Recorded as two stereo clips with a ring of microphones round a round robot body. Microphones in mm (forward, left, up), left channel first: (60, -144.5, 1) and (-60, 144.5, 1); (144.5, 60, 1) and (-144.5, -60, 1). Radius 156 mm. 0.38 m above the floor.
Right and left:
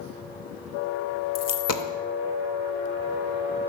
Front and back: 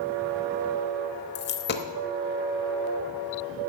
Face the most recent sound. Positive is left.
turn(degrees=-30)